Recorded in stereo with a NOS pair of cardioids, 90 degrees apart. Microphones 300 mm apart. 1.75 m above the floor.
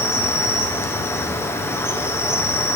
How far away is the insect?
About 0.9 m.